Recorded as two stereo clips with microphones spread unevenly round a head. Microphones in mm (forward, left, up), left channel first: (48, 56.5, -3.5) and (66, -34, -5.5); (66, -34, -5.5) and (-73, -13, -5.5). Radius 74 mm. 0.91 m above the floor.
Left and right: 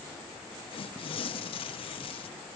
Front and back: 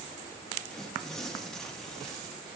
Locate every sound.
0.7 s tearing paper: 80° left, 0.6 m